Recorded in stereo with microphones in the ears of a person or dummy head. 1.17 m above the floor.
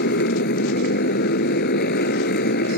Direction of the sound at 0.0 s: 55° left (ahead or behind).